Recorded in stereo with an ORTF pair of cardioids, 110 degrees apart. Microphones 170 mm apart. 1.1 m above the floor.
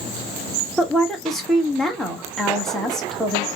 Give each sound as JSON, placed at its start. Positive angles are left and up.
{"t": 0.8, "sound": "a woman speaking", "azimuth_deg": 0, "distance_m": 1.2}